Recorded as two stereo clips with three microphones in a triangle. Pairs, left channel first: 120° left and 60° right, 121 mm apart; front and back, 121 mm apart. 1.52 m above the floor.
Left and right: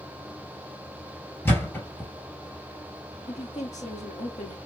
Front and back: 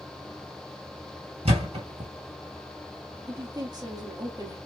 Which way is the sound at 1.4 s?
175° right.